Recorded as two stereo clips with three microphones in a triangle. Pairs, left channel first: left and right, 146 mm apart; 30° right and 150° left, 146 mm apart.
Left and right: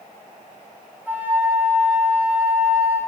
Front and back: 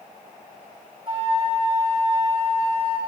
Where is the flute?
165° right, 1.7 m.